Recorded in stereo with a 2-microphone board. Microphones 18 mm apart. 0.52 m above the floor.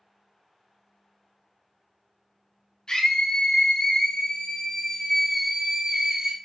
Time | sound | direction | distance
2.9 | a scream | 50° left (ahead or behind) | 1.6 m